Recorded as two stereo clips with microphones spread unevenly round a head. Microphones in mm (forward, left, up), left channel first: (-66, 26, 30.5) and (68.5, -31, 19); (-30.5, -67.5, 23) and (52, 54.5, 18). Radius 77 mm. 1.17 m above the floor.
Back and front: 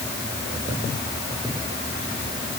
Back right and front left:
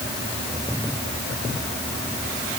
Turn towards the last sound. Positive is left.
No sound to turn to.